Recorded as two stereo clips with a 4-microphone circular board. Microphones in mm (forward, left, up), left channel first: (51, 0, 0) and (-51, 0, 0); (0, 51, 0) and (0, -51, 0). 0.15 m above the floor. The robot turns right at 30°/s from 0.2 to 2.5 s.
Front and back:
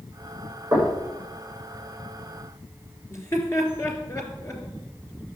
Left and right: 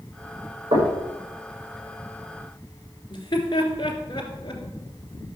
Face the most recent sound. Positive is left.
turn(degrees=55)